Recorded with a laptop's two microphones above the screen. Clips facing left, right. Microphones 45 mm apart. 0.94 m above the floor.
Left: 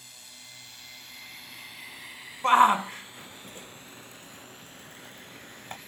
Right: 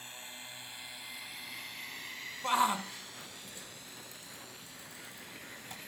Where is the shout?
45° left (ahead or behind).